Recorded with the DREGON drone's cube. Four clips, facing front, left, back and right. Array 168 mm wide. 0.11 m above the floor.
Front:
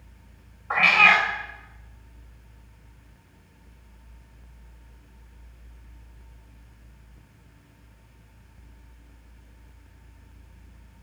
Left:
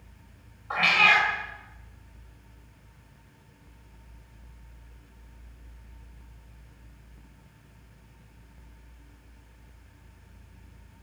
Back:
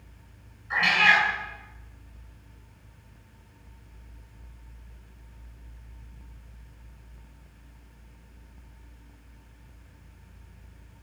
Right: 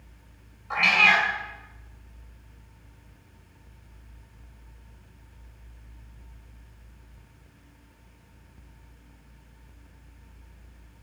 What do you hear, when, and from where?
0.7 s a cat meowing: 15° left, 4 m